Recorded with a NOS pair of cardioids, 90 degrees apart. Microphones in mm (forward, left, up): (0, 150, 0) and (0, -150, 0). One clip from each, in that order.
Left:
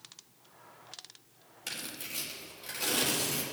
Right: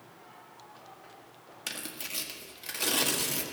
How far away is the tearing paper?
About 1.9 m.